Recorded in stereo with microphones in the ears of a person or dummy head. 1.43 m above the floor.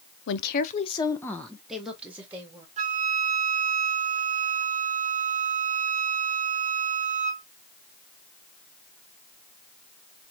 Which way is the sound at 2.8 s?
35° right (ahead or behind).